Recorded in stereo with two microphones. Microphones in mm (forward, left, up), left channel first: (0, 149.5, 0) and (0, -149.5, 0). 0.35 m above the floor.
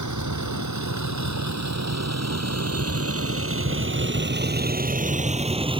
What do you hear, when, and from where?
0.0 s a vehicle: 75° right (ahead or behind); by 5.8 s 15° right (ahead or behind)